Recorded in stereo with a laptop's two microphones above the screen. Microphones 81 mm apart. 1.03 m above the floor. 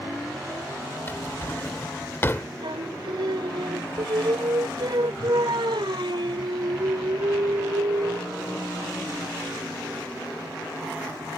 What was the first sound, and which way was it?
A drawer, 30° left (ahead or behind).